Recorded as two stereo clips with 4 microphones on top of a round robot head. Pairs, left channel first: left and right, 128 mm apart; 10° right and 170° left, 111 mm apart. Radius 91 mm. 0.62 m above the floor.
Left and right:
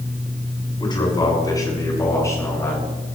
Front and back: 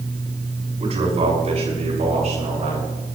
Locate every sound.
0.8 s a man speaking: 140° left, 6.5 m; by 2.9 s 160° left, 8.5 m